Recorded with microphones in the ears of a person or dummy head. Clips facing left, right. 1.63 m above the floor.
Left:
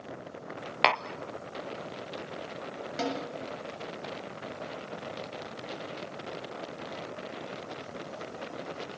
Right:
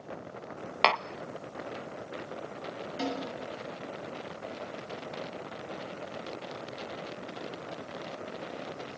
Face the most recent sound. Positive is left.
turn(degrees=85)